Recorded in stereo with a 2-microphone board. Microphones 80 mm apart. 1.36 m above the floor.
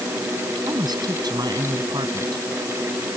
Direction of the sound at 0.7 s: 65° right (ahead or behind).